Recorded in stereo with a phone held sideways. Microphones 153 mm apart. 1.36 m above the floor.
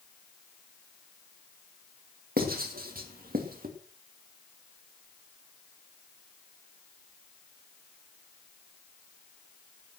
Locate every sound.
2.4 s writing: 70° right (ahead or behind), 2.5 m